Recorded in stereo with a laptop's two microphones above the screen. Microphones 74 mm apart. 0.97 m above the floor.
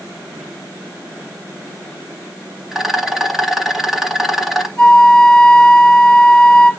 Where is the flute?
10° left (ahead or behind), 2.5 m.